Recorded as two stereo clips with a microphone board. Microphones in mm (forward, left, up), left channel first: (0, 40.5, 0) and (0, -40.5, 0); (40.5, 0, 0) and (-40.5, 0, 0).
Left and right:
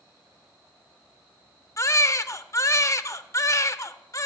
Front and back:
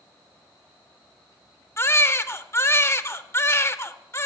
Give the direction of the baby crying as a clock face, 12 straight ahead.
10 o'clock.